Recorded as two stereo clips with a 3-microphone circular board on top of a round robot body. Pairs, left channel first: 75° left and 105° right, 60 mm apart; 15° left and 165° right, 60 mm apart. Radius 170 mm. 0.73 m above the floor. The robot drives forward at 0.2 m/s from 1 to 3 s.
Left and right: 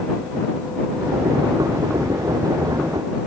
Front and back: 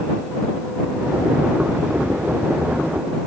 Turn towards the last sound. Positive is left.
No sound to turn to.